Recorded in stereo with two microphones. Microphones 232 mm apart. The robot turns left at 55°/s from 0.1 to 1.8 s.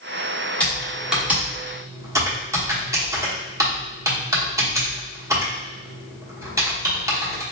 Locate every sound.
0.6 s typing on a keyboard: 5° left (ahead or behind), 1.0 m; by 7.4 s 15° right (ahead or behind), 1.0 m